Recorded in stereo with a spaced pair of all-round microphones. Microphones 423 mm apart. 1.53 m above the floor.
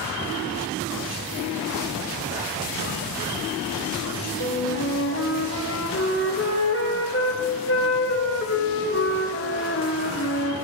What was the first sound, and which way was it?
A flute, 30° left (ahead or behind).